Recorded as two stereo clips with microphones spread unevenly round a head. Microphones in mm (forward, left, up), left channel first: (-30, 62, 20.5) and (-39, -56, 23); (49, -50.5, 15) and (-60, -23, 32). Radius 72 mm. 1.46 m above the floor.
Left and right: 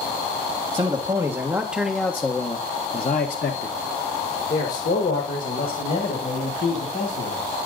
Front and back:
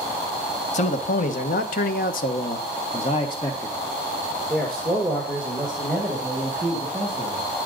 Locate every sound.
0.7 s a man speaking: 35° right, 1.3 m; by 7.4 s 90° left, 3 m